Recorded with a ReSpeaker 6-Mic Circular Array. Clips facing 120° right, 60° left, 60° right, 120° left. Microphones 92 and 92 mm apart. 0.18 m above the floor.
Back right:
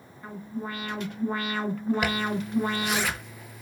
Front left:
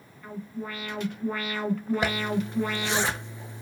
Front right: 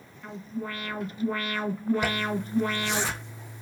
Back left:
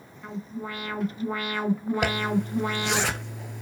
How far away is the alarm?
About 2.5 m.